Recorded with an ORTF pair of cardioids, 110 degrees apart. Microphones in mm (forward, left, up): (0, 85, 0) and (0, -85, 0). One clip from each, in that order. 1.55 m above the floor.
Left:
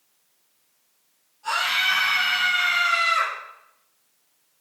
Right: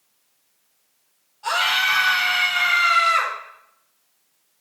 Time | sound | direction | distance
1.4 | a scream | 60° right | 4.5 m